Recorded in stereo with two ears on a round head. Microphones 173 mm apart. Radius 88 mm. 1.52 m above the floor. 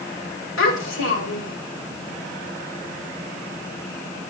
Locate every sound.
0.6 s a child speaking: 75° left (ahead or behind), 6.5 m